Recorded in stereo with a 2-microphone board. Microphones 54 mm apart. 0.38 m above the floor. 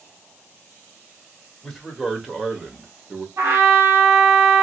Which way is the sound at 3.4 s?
60° right (ahead or behind).